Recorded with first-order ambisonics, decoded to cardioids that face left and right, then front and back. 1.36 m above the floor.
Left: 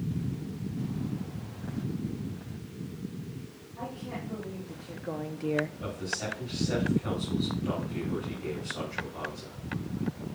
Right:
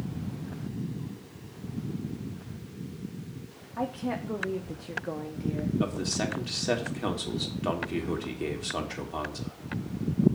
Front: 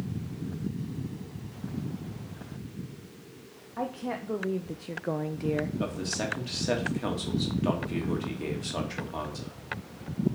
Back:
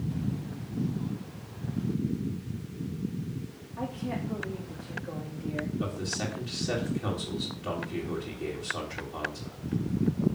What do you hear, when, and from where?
3.8 s a woman speaking: 50° right, 1.5 m; by 5.7 s 60° left, 0.6 m
5.8 s a man speaking: 60° right, 2.5 m